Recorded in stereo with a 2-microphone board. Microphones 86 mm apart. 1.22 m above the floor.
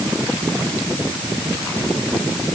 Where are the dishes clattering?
I don't hear dishes clattering.